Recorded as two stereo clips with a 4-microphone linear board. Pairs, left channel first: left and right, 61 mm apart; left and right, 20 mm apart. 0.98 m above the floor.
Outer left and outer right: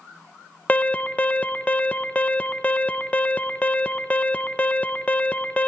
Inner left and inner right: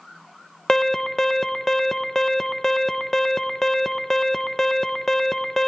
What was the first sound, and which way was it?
An alarm, 25° left (ahead or behind).